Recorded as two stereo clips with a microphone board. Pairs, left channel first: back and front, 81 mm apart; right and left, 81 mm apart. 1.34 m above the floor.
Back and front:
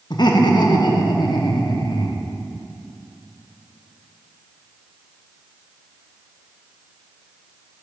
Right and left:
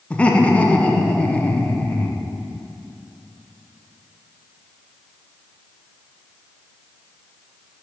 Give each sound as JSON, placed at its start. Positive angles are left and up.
{"t": 0.1, "sound": "laughter", "azimuth_deg": -165, "distance_m": 0.8}